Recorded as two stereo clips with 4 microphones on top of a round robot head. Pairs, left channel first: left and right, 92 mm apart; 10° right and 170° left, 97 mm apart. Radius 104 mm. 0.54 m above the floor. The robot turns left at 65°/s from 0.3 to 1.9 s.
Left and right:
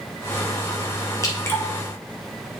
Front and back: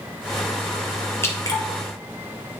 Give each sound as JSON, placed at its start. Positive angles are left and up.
{"t": 1.2, "sound": "dripping", "azimuth_deg": 50, "distance_m": 1.6}